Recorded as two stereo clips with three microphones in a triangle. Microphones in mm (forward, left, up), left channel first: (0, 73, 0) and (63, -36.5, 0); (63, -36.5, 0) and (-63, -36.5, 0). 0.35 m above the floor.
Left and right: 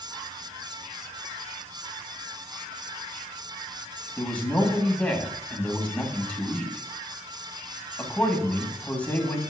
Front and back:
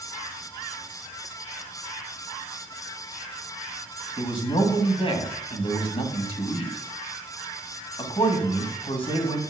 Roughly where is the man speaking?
Ahead left.